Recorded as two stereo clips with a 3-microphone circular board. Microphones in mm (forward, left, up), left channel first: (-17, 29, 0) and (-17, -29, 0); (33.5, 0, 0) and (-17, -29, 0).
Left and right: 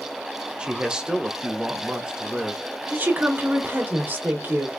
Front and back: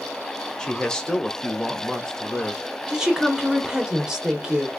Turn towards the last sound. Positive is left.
turn(degrees=-80)